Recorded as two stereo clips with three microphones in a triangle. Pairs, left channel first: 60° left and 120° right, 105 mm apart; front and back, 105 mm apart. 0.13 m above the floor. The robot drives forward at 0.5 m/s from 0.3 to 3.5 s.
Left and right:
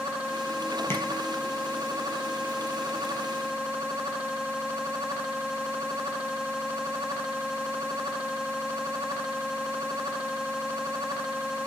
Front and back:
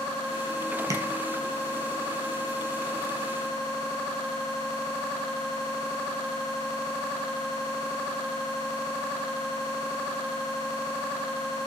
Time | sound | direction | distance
0.9 | tapping | 125° left | 0.5 m